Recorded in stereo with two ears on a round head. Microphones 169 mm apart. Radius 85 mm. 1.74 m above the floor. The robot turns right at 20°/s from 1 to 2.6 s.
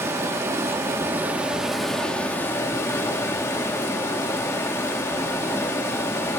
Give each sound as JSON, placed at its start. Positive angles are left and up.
{"t": 0.0, "sound": "running water", "azimuth_deg": -15, "distance_m": 2.0}